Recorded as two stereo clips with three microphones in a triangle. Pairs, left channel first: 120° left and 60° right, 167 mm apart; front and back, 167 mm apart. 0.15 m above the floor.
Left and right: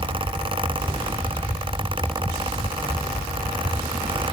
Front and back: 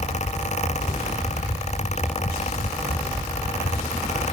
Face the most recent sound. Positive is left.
No sound to turn to.